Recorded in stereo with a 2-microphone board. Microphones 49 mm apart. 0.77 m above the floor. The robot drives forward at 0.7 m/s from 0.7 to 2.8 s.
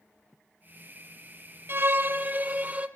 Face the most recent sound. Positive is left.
turn(degrees=-30)  # may be behind; listen again after turning